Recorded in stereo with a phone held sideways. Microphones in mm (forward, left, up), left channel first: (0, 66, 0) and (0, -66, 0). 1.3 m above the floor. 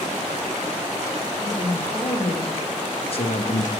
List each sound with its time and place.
1.4 s a man speaking: 25° left (ahead or behind), 2 m; by 3.7 s 70° left (ahead or behind), 0.6 m